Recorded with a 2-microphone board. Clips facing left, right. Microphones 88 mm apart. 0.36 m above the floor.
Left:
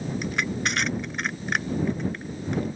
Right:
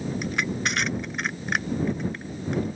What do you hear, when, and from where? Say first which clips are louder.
0.2 s crushing: left 1 dB; centre (ahead or behind)